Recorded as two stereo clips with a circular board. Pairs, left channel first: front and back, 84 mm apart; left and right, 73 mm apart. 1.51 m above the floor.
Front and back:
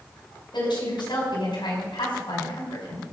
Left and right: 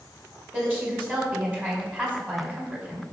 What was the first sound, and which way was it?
A woman speaking, 20° right.